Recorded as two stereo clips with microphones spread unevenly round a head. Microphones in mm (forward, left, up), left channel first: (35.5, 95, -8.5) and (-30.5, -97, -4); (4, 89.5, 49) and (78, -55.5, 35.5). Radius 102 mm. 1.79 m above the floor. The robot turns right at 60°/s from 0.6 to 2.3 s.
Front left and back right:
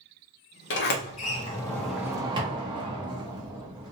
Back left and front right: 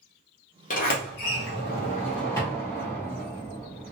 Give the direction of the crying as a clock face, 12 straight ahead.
I don't hear crying.